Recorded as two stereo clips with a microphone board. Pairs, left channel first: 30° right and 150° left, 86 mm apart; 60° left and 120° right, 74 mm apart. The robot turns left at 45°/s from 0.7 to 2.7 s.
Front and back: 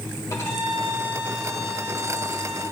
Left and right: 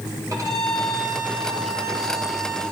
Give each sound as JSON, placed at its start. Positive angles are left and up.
{"t": 0.3, "sound": "a violin", "azimuth_deg": -80, "distance_m": 3.0}